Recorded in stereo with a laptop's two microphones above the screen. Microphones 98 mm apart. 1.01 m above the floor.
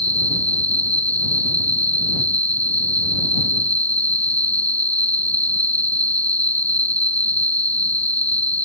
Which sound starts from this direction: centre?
An insect, at 0.0 s.